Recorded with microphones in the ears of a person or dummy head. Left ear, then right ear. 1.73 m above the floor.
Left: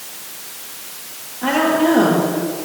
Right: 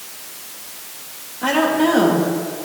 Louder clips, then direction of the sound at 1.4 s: Left 1 dB; 15° right (ahead or behind).